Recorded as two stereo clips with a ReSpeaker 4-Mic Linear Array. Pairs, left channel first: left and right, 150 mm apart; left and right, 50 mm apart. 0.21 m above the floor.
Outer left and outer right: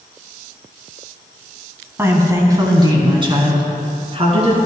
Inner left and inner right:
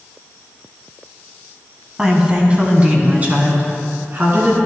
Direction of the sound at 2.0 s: 15° right (ahead or behind).